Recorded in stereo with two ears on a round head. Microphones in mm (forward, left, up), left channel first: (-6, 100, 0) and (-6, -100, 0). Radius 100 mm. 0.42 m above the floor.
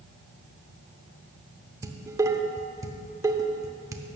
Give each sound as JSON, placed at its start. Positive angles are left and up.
{"t": 1.8, "sound": "dishes clattering", "side_deg": -15, "distance_m": 0.6}